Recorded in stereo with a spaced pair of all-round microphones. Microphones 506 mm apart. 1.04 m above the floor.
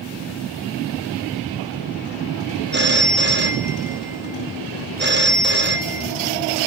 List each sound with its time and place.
2.7 s a phone ringing: 20° right (ahead or behind), 0.9 m